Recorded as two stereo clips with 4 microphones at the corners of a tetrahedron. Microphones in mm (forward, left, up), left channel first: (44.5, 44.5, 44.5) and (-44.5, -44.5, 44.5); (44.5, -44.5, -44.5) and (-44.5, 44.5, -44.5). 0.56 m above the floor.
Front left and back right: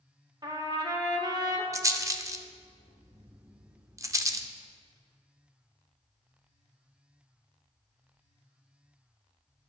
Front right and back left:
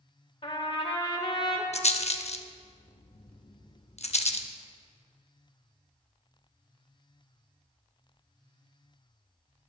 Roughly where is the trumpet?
Right.